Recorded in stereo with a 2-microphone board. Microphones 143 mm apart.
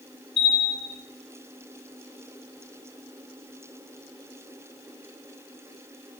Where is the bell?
45° left (ahead or behind), 1.4 m.